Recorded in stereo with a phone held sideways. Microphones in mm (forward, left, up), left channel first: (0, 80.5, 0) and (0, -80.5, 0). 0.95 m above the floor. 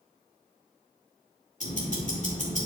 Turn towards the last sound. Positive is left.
turn(degrees=50)  # may be behind; listen again after turning